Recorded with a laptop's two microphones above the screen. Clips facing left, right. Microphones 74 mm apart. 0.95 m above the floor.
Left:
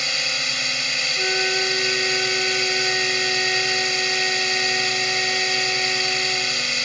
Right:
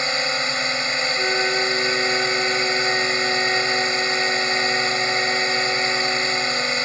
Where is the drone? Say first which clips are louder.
Right 5 dB; 30° right (ahead or behind).